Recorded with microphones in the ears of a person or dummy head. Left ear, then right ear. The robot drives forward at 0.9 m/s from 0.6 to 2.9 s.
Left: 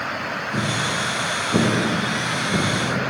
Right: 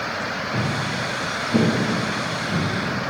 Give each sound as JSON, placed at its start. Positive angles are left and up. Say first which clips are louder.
{"t": 0.5, "sound": "footsteps", "louder": "left 2 dB", "side_deg": -5, "distance_m": 4.0}